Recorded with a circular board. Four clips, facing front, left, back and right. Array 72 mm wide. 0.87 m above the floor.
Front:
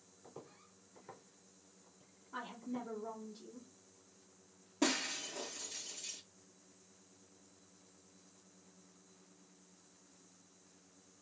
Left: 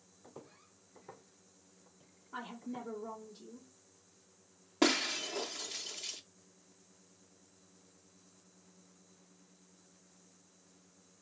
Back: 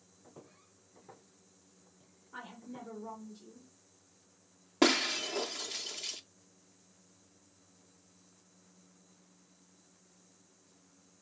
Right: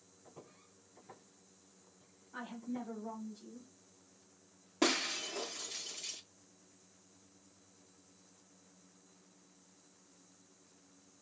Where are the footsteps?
65° left, 1.6 m; by 2.9 s 80° left, 4 m.